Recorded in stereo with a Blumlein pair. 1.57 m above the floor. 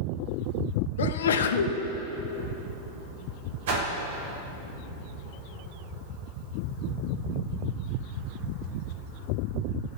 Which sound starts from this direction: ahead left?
A sneeze, at 1.0 s.